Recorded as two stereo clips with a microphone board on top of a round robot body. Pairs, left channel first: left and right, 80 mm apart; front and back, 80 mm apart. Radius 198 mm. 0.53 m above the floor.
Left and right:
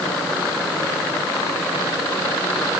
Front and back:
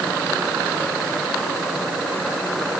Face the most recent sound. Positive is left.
No sound to turn to.